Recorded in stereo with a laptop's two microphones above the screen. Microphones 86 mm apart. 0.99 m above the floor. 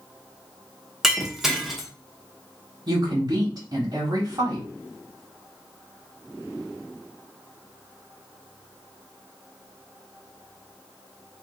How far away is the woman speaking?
About 1.5 m.